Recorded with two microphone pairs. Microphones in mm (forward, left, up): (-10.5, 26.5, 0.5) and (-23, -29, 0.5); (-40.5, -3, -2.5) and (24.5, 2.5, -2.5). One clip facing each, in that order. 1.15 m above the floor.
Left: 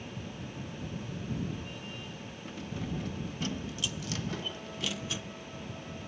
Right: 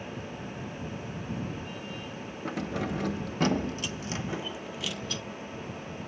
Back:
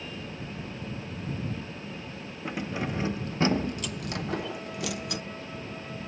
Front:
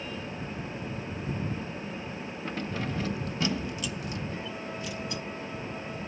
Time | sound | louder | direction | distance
2.5 | keys jangling | right 7 dB, back 2 dB | 100° right | ?